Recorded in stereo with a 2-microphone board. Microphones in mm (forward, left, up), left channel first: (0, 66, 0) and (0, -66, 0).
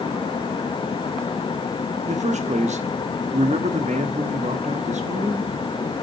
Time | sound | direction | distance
2.0 | a man speaking | 60° right (ahead or behind) | 0.9 m